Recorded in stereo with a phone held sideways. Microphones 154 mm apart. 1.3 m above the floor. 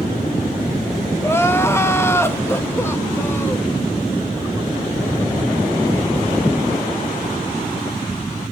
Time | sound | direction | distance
1.2 | crying | 15° left (ahead or behind) | 0.8 m